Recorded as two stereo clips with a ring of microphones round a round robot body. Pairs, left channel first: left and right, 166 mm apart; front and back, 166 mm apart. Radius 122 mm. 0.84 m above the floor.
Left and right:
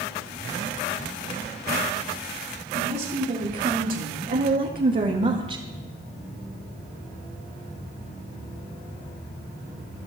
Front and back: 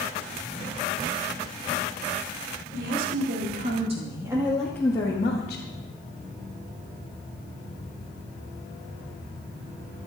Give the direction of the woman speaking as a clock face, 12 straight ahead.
5 o'clock.